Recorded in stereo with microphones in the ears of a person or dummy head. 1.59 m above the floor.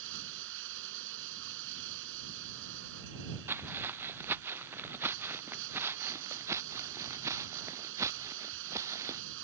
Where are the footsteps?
15° right (ahead or behind); by 9.2 s 20° right (ahead or behind).